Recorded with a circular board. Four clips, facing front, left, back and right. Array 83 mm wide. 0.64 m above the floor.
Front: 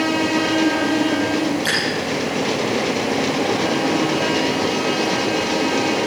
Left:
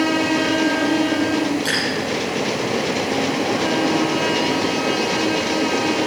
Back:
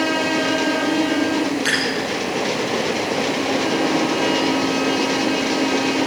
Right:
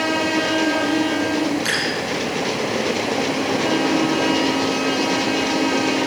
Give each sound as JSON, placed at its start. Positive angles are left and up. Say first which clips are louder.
{"t": 1.6, "sound": "dripping", "louder": "left 1 dB, back 1 dB", "azimuth_deg": -150, "distance_m": 6.0}